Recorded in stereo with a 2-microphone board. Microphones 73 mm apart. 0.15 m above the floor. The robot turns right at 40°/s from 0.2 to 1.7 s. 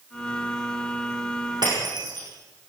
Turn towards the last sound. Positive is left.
turn(degrees=-75)  # may be behind; listen again after turning